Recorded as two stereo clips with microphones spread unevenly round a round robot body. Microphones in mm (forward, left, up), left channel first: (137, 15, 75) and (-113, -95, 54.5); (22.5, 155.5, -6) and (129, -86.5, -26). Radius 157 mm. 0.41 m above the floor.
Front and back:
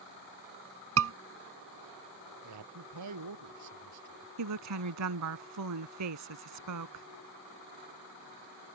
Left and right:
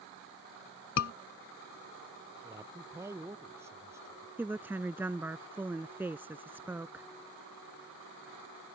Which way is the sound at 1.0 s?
170° left.